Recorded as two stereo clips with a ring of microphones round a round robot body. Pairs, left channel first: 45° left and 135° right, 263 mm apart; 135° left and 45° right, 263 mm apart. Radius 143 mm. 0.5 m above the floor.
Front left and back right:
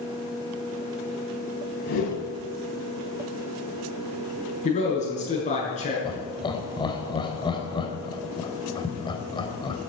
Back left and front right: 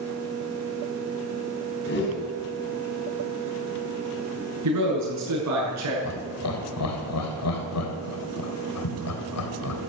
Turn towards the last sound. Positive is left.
turn(degrees=120)